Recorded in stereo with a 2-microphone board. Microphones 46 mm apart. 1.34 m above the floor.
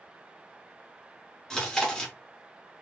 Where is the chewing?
15° left (ahead or behind), 1.1 m.